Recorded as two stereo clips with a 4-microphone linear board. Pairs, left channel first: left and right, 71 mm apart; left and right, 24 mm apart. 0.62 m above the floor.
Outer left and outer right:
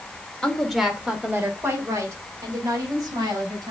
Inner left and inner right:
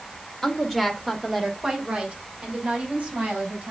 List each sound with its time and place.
0.4 s a woman speaking: 10° left (ahead or behind), 1.8 m; by 3.7 s 60° right (ahead or behind), 5 m